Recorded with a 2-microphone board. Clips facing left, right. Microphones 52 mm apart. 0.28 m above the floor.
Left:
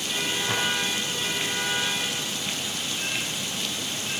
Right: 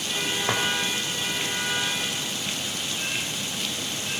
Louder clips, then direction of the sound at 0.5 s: Right 3 dB; 70° right (ahead or behind).